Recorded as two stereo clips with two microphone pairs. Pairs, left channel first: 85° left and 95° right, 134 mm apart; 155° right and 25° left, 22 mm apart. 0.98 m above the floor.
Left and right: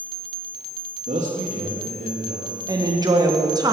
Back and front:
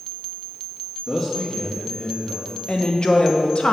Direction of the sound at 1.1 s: 105° right.